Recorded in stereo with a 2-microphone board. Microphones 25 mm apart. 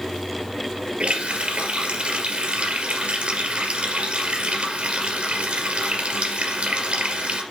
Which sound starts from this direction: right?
A running tap, at 1.0 s.